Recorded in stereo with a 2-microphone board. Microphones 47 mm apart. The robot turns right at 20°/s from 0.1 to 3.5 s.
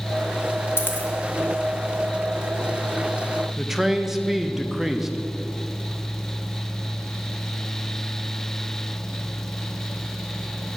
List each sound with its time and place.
0.8 s a dropped coin: 55° left (ahead or behind), 1.9 m; by 1.1 s 50° left (ahead or behind), 1.9 m
3.6 s a man speaking: 5° right (ahead or behind), 0.6 m